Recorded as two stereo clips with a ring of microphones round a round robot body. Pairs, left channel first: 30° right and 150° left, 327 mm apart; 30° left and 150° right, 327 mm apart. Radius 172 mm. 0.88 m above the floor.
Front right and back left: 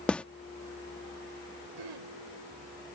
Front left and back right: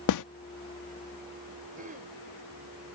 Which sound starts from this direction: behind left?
Throat clearing, at 1.8 s.